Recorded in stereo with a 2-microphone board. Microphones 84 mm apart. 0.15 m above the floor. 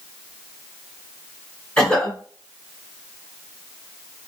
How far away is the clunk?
I don't hear a clunk.